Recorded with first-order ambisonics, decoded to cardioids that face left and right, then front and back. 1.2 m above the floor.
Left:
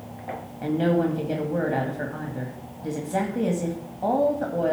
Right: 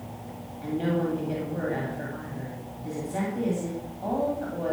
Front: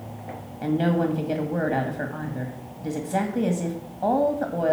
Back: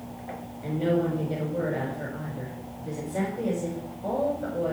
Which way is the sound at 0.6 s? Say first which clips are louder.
Left 5 dB, front 2 dB; 35° left.